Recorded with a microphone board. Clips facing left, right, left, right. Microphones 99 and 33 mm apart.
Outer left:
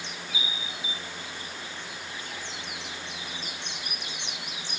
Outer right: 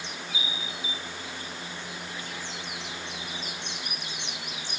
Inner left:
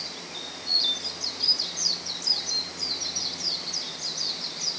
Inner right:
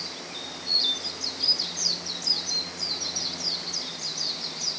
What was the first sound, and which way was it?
Only background noise.